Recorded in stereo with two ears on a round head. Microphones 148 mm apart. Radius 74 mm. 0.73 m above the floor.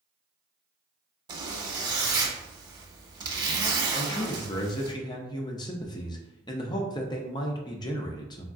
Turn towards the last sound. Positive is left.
turn(degrees=25)  # may be behind; listen again after turning